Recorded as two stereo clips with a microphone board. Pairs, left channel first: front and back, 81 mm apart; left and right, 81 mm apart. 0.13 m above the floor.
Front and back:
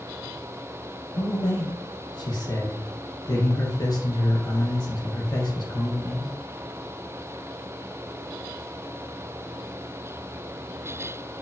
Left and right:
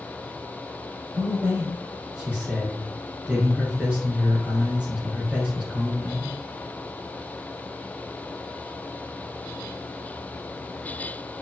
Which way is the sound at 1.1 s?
15° right.